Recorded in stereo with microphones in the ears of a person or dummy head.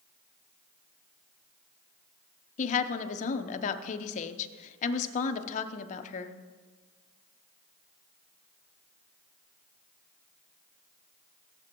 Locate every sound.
2.6 s a woman speaking: 45° left (ahead or behind), 0.8 m